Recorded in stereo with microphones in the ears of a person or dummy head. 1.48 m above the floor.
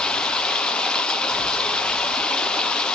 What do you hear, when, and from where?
0.0 s running water: 5° left (ahead or behind), 0.9 m